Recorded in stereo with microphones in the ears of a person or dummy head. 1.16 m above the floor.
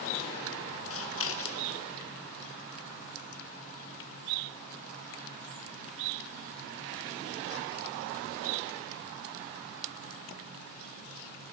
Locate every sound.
0.9 s scissors: 65° left (ahead or behind), 1.5 m